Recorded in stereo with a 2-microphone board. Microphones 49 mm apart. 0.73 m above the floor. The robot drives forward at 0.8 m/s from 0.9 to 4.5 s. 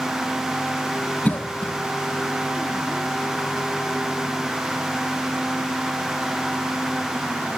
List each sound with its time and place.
1.2 s a cough: 35° left (ahead or behind), 0.5 m; by 1.8 s 25° left (ahead or behind), 0.7 m